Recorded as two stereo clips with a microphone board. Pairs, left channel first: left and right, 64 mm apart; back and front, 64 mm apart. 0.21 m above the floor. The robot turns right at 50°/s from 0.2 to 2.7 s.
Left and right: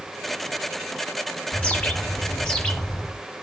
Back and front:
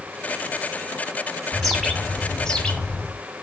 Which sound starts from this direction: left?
A bird, at 1.5 s.